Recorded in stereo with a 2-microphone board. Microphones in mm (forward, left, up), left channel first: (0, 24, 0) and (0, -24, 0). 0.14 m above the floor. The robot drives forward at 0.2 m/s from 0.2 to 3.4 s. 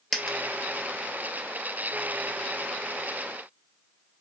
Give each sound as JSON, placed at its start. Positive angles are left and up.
{"t": 0.1, "sound": "a dropped coin", "side_deg": 5, "distance_m": 0.6}